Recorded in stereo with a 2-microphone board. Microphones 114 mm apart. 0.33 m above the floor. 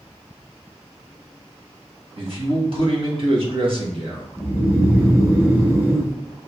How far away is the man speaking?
About 1.6 m.